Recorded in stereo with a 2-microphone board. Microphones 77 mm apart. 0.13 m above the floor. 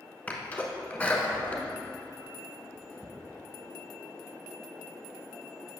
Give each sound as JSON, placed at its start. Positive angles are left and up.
{"t": 0.3, "sound": "a sneeze", "side_deg": 20, "distance_m": 1.1}